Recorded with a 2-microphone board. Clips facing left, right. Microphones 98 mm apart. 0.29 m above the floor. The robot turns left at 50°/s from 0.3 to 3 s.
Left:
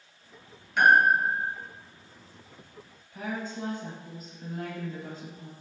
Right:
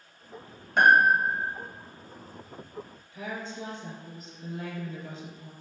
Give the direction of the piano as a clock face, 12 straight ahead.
1 o'clock.